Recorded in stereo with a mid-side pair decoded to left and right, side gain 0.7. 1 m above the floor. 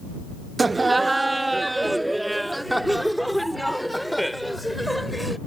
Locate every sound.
0.6 s laughter: 20° right; by 5.4 s straight ahead